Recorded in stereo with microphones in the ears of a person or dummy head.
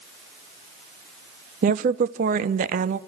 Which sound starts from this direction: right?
A woman speaking, at 1.6 s.